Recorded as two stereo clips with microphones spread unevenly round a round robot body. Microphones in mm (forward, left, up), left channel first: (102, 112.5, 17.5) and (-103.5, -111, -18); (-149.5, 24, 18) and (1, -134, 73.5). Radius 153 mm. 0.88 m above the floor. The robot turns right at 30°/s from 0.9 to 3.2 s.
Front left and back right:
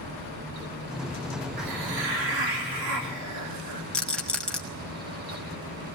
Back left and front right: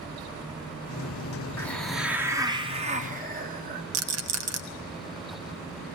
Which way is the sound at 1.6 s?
150° right.